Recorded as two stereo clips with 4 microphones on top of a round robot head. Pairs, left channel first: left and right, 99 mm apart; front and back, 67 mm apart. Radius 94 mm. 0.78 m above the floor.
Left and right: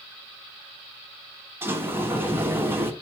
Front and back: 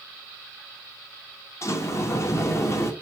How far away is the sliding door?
About 1.6 m.